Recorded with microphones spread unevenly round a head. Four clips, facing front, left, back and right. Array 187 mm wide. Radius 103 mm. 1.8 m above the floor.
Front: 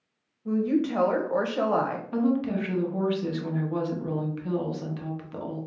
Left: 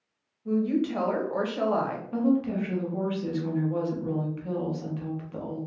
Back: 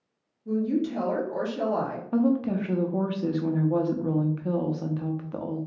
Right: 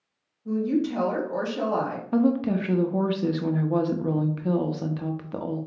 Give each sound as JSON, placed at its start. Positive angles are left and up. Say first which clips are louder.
{"t": 0.5, "sound": "a woman speaking", "louder": "right 1 dB, front 1 dB", "azimuth_deg": 10, "distance_m": 1.3}
{"t": 2.1, "sound": "a woman speaking", "louder": "right 3 dB, back 2 dB", "azimuth_deg": -95, "distance_m": 0.7}